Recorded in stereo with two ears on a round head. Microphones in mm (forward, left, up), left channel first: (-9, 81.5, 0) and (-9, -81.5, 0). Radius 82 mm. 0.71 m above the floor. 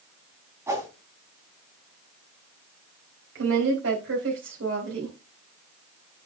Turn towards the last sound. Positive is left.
turn(degrees=-80)